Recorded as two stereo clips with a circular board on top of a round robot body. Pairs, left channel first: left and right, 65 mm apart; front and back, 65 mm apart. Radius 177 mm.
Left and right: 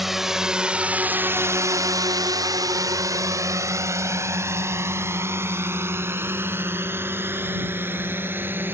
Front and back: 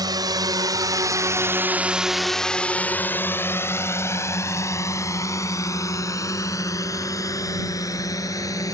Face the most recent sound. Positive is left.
turn(degrees=-35)